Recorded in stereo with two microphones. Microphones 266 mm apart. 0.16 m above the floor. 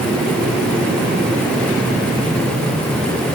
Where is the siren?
No siren in this recording.